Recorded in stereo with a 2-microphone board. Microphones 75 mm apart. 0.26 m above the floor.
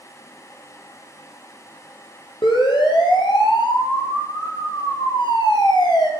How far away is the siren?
About 7 m.